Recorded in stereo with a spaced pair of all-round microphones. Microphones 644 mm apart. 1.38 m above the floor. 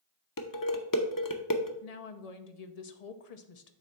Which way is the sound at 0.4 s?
30° left (ahead or behind).